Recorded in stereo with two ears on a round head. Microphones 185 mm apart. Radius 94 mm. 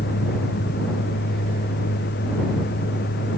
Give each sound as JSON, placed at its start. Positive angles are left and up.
{"t": 0.0, "sound": "a vehicle", "side_deg": 50}